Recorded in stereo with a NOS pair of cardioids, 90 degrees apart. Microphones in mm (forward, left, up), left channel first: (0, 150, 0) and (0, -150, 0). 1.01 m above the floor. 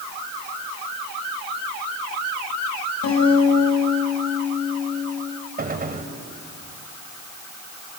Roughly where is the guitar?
Ahead left.